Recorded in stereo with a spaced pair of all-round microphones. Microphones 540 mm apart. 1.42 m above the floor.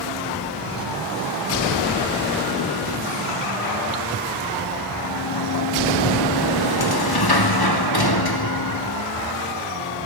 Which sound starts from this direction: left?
A sliding door, at 5.0 s.